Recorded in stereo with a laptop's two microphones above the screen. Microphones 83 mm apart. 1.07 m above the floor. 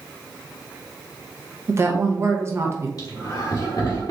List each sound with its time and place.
1.7 s a woman speaking: 35° right (ahead or behind), 0.6 m
3.0 s laughter: 50° left (ahead or behind), 1.7 m